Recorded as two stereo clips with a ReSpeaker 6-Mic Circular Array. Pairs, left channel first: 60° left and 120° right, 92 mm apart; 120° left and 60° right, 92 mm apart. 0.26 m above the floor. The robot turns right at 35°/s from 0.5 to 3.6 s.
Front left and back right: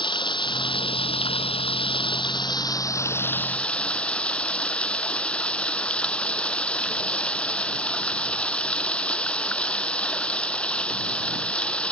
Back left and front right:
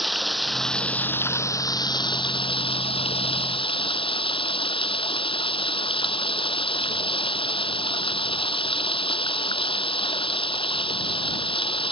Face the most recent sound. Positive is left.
turn(degrees=135)